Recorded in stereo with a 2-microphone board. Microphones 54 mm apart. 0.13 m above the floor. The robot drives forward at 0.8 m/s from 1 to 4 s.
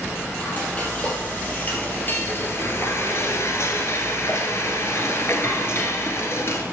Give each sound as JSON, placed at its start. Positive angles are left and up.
{"t": 0.4, "sound": "frying", "side_deg": 25, "distance_m": 2.5}